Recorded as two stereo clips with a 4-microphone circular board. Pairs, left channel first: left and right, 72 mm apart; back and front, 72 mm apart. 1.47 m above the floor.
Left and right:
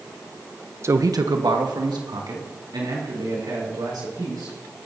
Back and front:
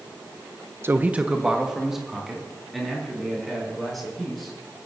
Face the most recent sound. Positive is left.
turn(degrees=-95)